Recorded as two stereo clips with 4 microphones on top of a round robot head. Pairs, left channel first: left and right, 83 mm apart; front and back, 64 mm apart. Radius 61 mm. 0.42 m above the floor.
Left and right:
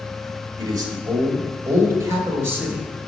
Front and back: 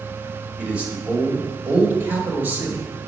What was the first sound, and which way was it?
A man speaking, 115° right.